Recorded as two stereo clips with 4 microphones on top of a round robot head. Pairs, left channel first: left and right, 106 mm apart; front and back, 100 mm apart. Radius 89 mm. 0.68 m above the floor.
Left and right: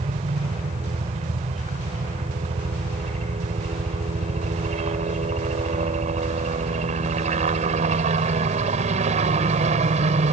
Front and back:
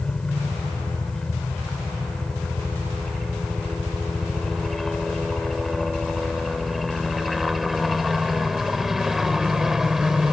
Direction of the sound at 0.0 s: 85° right.